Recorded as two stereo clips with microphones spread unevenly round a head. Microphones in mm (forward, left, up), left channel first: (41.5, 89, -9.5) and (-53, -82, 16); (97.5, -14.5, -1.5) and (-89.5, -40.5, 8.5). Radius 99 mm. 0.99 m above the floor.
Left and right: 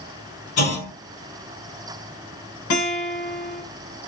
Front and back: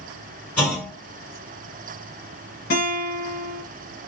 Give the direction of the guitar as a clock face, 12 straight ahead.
10 o'clock.